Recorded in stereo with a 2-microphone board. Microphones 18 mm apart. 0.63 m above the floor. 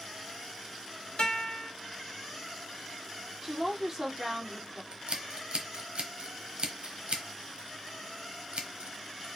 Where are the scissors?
70° right (ahead or behind), 1.0 m.